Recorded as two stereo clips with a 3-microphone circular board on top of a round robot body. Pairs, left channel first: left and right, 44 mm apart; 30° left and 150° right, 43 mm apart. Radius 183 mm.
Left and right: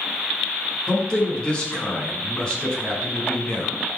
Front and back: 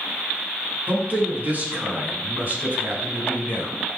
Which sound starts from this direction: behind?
A man speaking, at 0.9 s.